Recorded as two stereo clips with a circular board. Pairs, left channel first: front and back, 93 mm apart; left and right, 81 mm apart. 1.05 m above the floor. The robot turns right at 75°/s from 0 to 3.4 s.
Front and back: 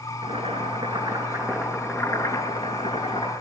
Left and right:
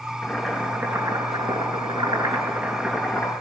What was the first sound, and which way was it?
Boiling, 165° left.